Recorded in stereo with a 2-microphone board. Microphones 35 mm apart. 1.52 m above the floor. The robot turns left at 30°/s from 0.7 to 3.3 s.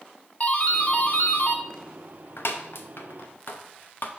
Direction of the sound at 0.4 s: 35° left (ahead or behind).